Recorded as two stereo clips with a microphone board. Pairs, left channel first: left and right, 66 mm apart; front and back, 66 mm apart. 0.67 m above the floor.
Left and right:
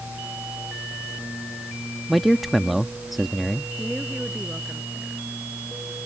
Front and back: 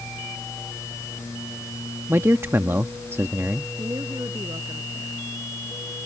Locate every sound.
2.1 s a man speaking: straight behind
3.8 s a woman speaking: 175° right